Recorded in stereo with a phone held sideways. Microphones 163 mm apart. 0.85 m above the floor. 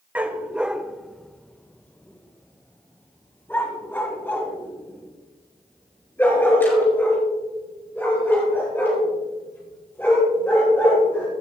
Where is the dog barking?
10° right (ahead or behind), 0.8 m; by 11.3 s 15° left (ahead or behind), 6.5 m.